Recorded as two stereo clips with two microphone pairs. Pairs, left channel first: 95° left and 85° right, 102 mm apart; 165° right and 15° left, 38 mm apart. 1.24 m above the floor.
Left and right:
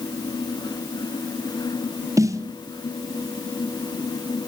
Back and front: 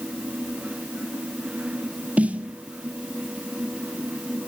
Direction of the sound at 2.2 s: 35° right.